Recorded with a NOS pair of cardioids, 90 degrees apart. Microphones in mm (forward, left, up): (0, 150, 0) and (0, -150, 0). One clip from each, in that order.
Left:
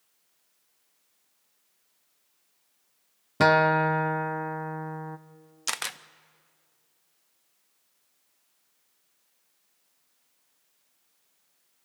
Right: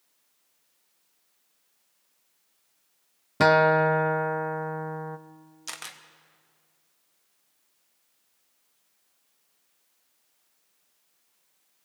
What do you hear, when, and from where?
3.4 s a guitar: straight ahead, 0.8 m
5.7 s a camera shutter: 45° left, 0.9 m